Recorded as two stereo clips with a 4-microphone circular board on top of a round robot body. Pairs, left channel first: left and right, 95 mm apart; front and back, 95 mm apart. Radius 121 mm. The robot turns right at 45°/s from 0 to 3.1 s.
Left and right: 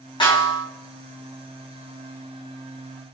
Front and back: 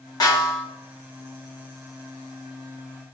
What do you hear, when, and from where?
0.2 s a snare drum: 50° left, 6 m; by 0.7 s 70° left, 6 m